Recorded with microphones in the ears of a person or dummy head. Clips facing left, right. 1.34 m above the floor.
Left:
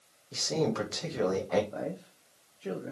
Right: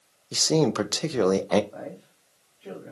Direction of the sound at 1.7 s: 20° left (ahead or behind).